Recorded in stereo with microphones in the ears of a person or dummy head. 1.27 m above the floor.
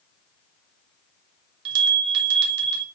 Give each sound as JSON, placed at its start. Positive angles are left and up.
{"t": 1.6, "sound": "a bell", "side_deg": -60, "distance_m": 2.0}